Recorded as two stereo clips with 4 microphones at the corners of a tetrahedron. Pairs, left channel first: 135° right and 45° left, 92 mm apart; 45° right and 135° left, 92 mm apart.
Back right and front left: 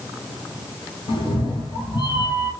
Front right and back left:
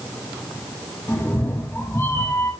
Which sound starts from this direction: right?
A cat meowing, at 1.1 s.